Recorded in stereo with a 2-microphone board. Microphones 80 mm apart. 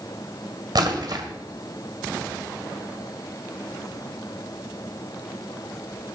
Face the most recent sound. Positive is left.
turn(degrees=-60)  # may be behind; listen again after turning